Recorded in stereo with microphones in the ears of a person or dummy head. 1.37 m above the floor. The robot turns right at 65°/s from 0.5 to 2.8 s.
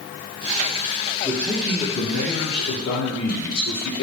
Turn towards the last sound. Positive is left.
turn(degrees=95)